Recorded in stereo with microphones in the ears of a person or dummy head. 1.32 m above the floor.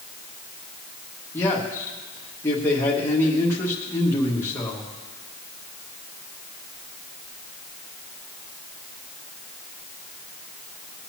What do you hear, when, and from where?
1.3 s a man speaking: 15° left (ahead or behind), 1.9 m